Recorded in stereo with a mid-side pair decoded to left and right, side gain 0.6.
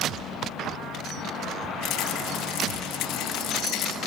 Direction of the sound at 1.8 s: 65° left.